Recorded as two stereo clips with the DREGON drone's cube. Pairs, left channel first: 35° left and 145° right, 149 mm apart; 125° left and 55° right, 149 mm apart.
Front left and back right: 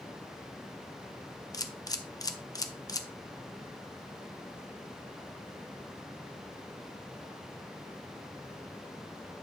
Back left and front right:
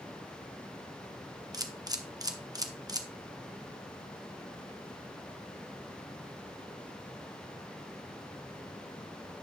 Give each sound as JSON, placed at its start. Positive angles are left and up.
{"t": 1.5, "sound": "a camera shutter", "azimuth_deg": -10, "distance_m": 0.8}